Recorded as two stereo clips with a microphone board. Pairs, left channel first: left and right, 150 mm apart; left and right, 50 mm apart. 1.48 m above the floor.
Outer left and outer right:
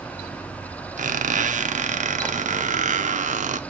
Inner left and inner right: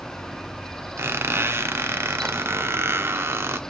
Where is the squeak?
55° right (ahead or behind), 0.5 m.